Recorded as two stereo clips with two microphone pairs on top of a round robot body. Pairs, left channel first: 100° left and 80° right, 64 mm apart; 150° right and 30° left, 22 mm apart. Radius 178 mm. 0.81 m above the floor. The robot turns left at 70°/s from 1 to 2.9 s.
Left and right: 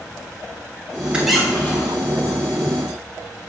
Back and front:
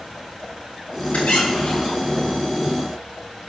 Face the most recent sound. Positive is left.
turn(degrees=75)